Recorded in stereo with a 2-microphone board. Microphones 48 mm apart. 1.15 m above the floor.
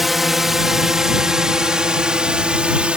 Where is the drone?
5° right (ahead or behind); by 3.0 s 25° right (ahead or behind).